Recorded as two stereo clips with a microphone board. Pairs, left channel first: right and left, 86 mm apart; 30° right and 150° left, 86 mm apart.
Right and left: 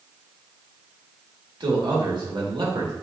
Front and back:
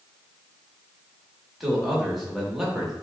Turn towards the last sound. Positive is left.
turn(degrees=65)